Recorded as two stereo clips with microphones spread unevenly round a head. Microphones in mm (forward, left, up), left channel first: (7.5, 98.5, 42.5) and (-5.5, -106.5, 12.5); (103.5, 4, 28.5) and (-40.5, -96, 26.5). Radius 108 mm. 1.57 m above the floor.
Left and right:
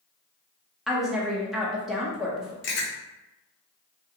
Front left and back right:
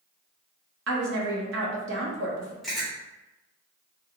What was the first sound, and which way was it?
A woman speaking, 175° left.